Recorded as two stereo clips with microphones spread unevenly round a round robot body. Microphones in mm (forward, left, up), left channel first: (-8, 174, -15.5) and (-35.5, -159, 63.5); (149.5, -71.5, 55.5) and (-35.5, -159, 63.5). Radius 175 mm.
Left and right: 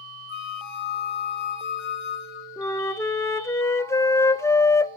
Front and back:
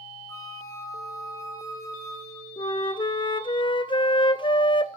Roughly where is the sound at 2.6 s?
Ahead left.